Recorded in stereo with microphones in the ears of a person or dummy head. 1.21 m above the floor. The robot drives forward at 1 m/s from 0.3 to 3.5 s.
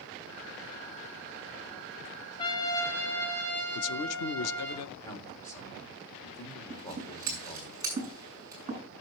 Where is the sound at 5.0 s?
20° left (ahead or behind), 2.5 m.